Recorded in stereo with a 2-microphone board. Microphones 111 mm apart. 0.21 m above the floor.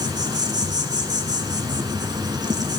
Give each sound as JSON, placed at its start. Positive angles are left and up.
{"t": 0.0, "sound": "an insect", "side_deg": -40, "distance_m": 1.3}